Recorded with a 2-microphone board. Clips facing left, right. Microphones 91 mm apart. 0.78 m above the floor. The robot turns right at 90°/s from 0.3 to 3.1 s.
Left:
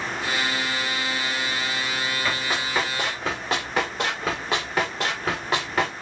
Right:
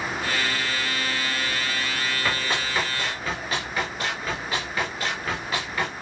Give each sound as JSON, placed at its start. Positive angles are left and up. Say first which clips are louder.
{"t": 2.2, "sound": "running footsteps", "louder": "even", "side_deg": -10, "distance_m": 8.5}